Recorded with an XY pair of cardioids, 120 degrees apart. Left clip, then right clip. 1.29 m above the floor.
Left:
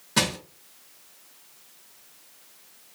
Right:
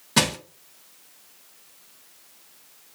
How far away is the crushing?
About 0.6 m.